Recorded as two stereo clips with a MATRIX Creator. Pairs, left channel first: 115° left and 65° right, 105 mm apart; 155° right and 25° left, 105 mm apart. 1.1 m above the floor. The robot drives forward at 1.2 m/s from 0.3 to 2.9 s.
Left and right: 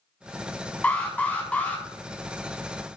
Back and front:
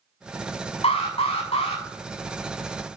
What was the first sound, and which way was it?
An alarm, 170° right.